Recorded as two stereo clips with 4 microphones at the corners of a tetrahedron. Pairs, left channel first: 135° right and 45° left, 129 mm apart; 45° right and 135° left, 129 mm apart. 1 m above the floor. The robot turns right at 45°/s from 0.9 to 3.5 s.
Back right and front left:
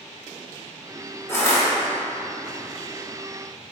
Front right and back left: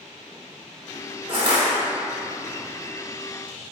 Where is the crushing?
155° left, 1.1 m; by 1.6 s 175° left, 1.1 m.